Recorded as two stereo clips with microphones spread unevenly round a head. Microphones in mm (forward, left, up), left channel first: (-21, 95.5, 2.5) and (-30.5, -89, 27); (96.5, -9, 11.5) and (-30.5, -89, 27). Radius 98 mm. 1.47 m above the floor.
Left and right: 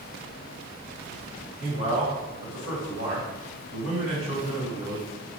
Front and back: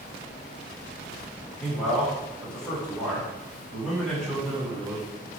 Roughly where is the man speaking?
Ahead right.